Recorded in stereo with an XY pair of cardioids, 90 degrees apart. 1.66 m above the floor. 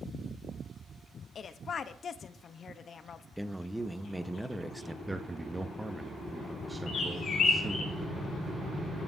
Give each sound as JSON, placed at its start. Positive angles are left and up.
{"t": 1.4, "sound": "a woman speaking", "azimuth_deg": 55, "distance_m": 0.9}
{"t": 3.4, "sound": "a man speaking", "azimuth_deg": -5, "distance_m": 1.0}
{"t": 5.1, "sound": "a man speaking", "azimuth_deg": -15, "distance_m": 0.8}
{"t": 6.9, "sound": "a bird", "azimuth_deg": 65, "distance_m": 3.5}